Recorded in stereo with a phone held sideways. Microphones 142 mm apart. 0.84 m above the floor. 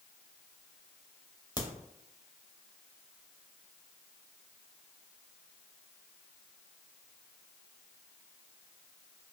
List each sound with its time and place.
1.6 s a crack: 30° left (ahead or behind), 0.7 m